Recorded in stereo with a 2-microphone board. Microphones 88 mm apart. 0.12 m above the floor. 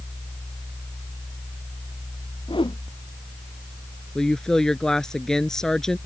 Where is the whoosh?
75° left (ahead or behind).